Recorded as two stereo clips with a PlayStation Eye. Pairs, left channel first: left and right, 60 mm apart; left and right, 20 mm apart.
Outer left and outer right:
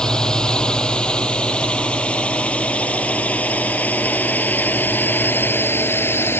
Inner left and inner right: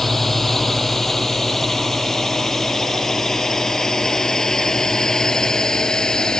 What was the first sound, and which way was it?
A drone, 10° left (ahead or behind).